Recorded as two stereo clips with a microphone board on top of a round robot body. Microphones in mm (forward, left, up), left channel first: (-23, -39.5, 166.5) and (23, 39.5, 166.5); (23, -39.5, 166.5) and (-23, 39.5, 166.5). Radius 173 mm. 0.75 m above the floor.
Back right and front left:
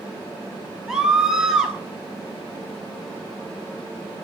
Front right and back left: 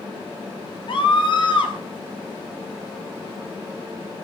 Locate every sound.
0.9 s a scream: 25° right, 5.5 m